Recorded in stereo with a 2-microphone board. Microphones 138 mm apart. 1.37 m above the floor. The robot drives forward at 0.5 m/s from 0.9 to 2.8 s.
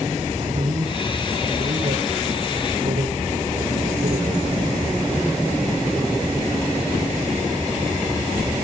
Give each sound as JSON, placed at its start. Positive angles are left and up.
{"t": 0.4, "sound": "a man speaking", "side_deg": -70, "distance_m": 5.0}